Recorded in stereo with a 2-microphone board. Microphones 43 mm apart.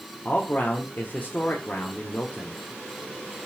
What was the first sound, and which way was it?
A man speaking, 40° left (ahead or behind).